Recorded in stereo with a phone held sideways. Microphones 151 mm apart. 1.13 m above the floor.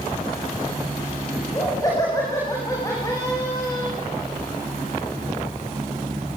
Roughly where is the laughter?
Left.